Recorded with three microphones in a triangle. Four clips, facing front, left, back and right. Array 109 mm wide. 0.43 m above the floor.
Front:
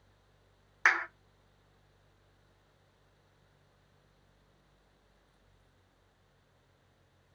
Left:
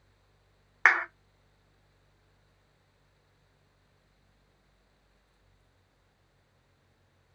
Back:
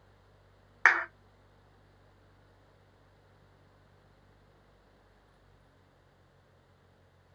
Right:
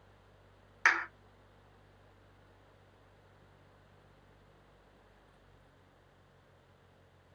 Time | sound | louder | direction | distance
0.8 | a clap | left 5 dB, back 3 dB | 120° left | 0.7 m